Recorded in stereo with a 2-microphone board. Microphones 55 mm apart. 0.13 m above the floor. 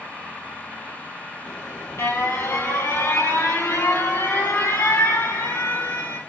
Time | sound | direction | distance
1.5 | an alarm | 50° left (ahead or behind) | 2.5 m